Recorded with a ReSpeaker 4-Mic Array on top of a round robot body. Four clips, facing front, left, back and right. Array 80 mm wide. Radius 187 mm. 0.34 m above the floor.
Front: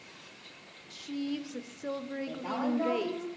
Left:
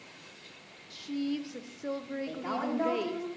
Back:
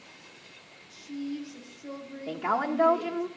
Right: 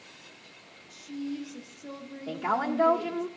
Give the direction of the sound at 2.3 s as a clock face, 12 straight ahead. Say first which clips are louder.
Right 7 dB, back 6 dB; 5 o'clock.